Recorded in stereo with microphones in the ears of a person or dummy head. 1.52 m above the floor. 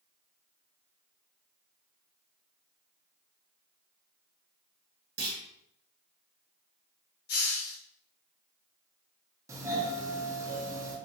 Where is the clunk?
65° right (ahead or behind), 0.9 m.